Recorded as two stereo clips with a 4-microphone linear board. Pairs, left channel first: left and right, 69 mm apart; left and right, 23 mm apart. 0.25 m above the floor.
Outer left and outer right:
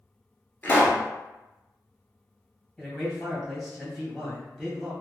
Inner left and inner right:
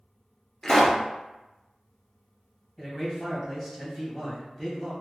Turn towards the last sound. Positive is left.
turn(degrees=0)  # may be behind; listen again after turning